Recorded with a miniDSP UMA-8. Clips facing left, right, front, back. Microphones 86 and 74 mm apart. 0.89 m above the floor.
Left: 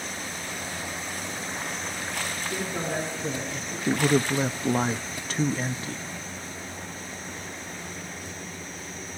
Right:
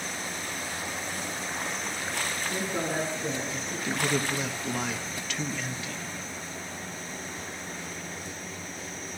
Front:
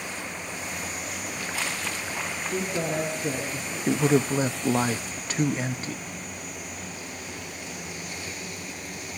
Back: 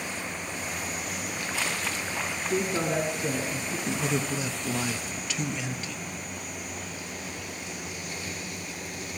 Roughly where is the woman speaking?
Behind.